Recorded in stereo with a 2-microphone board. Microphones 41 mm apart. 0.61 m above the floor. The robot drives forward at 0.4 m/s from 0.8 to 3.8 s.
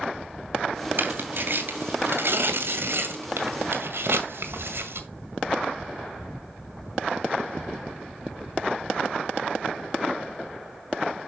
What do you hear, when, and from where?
1.0 s tearing paper: 55° right (ahead or behind), 2.5 m; by 5.0 s 80° right, 1.9 m